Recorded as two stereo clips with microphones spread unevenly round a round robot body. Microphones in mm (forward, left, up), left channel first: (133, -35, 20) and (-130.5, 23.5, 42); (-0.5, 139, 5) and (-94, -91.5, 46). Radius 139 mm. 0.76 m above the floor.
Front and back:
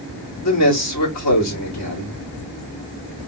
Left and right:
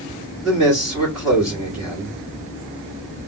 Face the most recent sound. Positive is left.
turn(degrees=-20)